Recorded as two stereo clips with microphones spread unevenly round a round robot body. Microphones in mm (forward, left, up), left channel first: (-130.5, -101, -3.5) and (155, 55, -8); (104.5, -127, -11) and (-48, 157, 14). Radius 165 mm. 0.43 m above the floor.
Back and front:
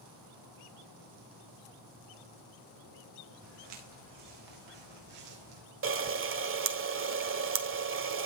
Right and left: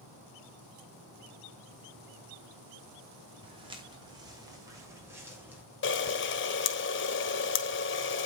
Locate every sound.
3.4 s footsteps: 45° left, 5 m; by 5.6 s 35° left, 6 m
5.8 s a camera shutter: 20° right, 1.6 m